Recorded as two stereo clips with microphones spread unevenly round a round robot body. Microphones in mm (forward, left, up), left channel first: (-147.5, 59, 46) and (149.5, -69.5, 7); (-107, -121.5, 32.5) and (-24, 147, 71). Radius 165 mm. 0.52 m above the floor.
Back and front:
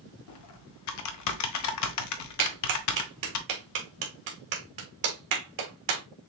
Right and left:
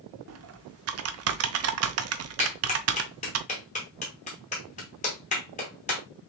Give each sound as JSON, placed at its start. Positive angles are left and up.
{"t": 0.3, "sound": "typing on a keyboard", "azimuth_deg": 115, "distance_m": 0.6}
{"t": 2.4, "sound": "a clap", "azimuth_deg": -45, "distance_m": 1.6}